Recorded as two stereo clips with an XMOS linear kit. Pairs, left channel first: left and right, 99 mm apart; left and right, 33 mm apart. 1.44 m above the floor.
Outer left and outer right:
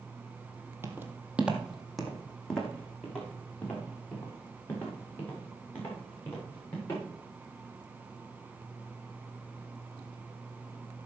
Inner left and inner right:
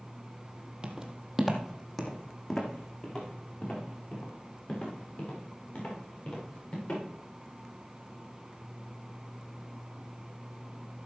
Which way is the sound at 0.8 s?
25° right (ahead or behind).